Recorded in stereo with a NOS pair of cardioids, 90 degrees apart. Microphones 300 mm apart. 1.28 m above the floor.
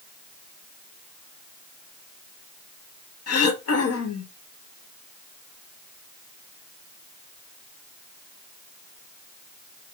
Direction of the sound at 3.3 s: 55° left.